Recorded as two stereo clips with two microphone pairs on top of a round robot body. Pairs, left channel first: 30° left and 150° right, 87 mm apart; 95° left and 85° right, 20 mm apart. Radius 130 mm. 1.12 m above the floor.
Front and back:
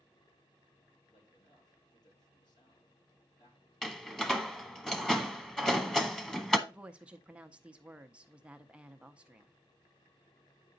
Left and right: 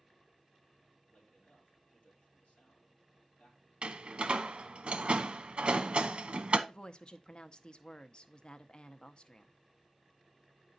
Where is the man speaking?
65° left, 3.5 m.